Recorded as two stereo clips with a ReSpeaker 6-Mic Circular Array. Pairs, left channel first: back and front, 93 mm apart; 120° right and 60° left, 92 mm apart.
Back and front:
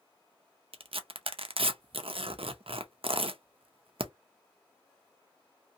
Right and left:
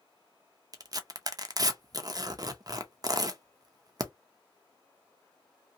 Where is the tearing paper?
10° left, 0.5 m.